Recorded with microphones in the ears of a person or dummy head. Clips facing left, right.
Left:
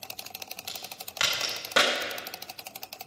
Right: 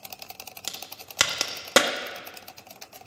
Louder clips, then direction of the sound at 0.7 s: Even; 65° right (ahead or behind).